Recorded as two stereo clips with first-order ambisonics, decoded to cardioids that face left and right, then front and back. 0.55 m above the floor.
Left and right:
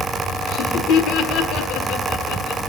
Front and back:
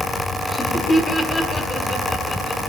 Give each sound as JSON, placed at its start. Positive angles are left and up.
{"t": 0.5, "sound": "laughter", "azimuth_deg": 75, "distance_m": 1.3}